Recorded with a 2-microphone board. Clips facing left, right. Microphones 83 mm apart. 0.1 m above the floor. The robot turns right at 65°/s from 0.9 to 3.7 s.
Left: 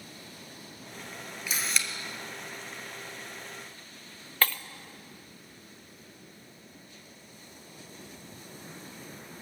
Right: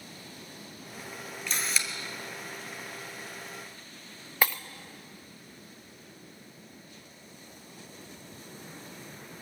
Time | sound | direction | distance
1.5 | a camera shutter | 10° left (ahead or behind) | 1.4 m
4.4 | breaking glass | 15° right (ahead or behind) | 0.6 m